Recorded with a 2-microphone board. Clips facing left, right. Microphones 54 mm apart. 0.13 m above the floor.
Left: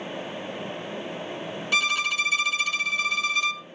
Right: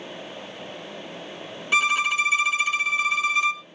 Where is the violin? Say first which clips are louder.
Right 4 dB; 20° right (ahead or behind), 0.5 m.